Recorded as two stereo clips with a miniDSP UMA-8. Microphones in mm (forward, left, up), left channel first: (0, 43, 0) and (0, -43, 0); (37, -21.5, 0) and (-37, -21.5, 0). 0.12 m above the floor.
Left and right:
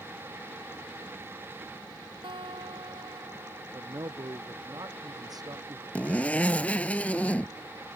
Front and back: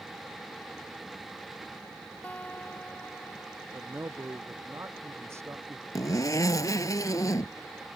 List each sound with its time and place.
2.2 s a guitar: 70° right
3.7 s a man speaking: 130° right
6.0 s a zipper: 20° left